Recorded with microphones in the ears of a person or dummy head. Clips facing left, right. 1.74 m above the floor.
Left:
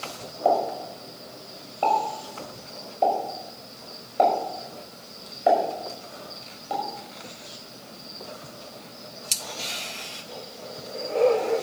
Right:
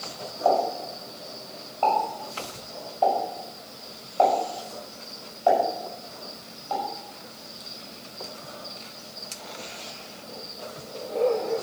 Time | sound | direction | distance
0.5 | a pop | 25° left (ahead or behind) | 6 m